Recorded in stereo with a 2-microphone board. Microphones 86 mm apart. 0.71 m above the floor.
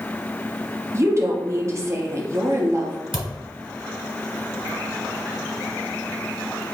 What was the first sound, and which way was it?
A woman speaking, 35° right (ahead or behind).